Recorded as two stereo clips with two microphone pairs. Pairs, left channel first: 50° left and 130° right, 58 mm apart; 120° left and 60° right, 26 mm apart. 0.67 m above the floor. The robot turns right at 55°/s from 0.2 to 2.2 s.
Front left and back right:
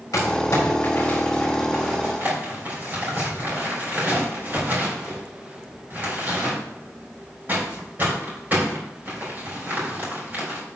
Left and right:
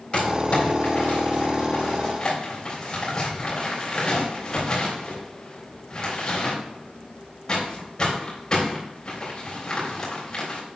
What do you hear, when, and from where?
0.1 s crumpling: 65° left, 3.5 m; by 10.6 s 175° left, 3.5 m